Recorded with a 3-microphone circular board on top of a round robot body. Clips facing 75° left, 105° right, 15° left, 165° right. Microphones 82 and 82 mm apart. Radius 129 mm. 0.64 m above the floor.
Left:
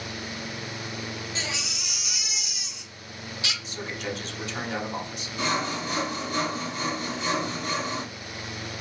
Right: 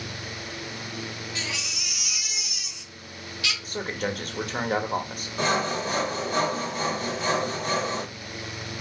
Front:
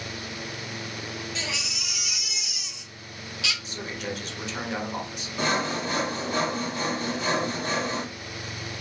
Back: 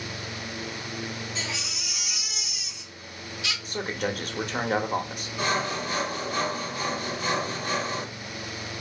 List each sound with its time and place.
1.4 s a baby crying: 10° left, 1.3 m
3.6 s a man speaking: 135° right, 0.9 m
5.4 s sawing: 50° right, 1.7 m